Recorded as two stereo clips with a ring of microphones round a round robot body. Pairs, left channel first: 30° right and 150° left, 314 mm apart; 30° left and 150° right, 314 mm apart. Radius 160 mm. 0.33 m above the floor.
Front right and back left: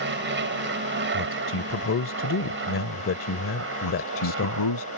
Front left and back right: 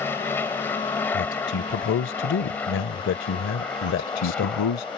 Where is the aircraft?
110° left; by 5.0 s 115° left.